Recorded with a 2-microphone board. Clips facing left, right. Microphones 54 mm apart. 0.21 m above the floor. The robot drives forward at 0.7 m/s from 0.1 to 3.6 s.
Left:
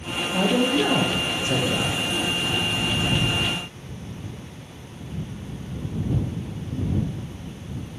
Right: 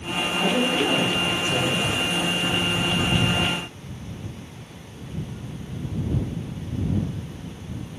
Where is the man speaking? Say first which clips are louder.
Left 2 dB; 60° left (ahead or behind), 3 m; by 2.1 s 65° left (ahead or behind), 3 m.